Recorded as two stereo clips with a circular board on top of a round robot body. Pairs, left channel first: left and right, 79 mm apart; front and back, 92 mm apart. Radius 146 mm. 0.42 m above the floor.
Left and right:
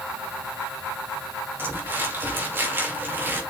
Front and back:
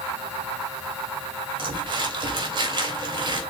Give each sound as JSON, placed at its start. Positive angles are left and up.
{"t": 1.6, "sound": "crumpling", "azimuth_deg": -150, "distance_m": 3.0}